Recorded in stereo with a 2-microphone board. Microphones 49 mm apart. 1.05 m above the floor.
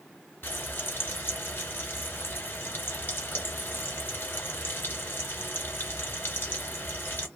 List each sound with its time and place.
0.4 s frying: 40° left (ahead or behind), 1.3 m